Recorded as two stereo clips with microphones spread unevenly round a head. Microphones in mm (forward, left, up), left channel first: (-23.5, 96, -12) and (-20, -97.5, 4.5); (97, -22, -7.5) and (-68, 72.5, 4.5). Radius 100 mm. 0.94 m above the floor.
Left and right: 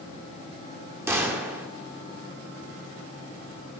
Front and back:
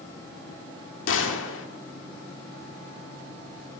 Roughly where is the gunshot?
Ahead.